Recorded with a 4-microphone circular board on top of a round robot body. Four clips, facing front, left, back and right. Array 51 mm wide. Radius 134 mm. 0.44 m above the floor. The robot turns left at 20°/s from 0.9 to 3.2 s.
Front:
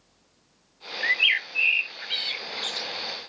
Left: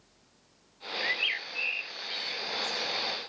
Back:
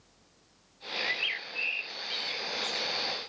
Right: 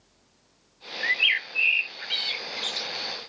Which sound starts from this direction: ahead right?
A bird, at 1.0 s.